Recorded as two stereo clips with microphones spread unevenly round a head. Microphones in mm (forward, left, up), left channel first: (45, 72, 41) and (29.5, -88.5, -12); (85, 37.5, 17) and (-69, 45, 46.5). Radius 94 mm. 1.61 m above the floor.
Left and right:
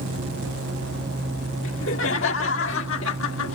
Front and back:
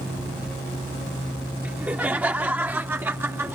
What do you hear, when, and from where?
1.6 s laughter: 95° left; by 3.5 s 100° left